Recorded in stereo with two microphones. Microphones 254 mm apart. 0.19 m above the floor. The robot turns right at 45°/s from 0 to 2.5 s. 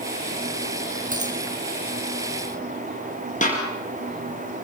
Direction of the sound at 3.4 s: 30° left (ahead or behind).